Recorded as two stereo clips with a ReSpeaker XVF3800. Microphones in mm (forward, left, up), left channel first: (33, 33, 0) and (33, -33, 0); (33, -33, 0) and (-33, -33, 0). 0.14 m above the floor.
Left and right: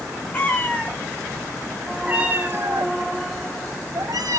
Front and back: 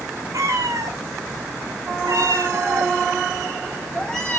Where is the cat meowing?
155° left, 1.8 m; by 4.4 s 80° right, 1.6 m.